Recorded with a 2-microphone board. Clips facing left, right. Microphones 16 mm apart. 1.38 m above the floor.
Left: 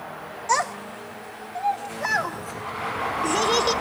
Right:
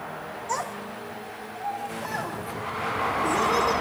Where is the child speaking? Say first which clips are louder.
Left 8 dB; 55° left (ahead or behind), 1.2 m; by 3.8 s 60° left (ahead or behind), 3 m.